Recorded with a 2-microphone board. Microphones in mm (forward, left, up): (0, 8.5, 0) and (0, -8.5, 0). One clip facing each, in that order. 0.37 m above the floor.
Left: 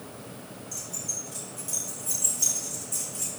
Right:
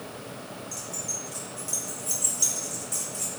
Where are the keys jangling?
20° right (ahead or behind), 7 m; by 3.3 s 30° right (ahead or behind), 7 m.